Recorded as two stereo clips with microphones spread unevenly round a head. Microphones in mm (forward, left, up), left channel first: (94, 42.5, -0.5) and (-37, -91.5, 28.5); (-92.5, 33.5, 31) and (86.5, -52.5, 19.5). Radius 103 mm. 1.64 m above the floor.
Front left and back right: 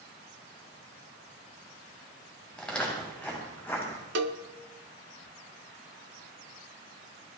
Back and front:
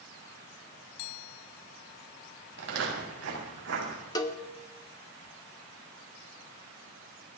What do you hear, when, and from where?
2.6 s footsteps: 40° right, 7.5 m; by 4.0 s 30° right, 8 m
4.2 s a cowbell: 140° right, 1.1 m